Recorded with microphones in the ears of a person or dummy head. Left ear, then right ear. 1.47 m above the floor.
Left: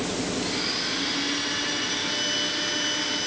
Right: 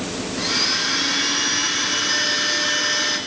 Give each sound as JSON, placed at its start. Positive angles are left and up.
{"t": 0.4, "sound": "a blender", "side_deg": -50, "distance_m": 7.5}